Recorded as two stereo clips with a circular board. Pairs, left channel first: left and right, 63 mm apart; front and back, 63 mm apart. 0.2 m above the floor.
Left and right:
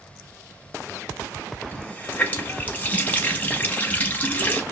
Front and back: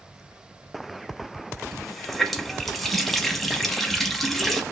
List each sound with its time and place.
1.7 s a running tap: 85° left, 0.7 m